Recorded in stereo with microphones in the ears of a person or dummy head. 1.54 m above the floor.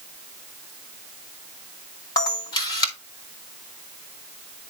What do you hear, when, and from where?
2.2 s a camera shutter: 20° left (ahead or behind), 1.9 m